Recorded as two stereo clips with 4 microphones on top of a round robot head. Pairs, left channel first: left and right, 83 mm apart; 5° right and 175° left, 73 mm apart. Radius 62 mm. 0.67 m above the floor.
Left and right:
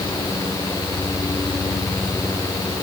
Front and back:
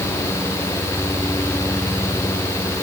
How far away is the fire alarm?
No fire alarm in this recording.